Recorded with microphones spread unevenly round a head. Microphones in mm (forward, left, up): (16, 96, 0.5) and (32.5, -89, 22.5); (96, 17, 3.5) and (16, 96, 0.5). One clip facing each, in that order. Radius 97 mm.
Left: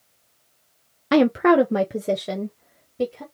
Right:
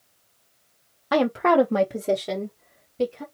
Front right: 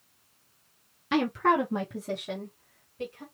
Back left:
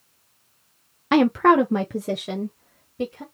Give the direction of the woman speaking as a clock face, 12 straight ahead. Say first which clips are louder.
Left 4 dB, back left 8 dB; 7 o'clock.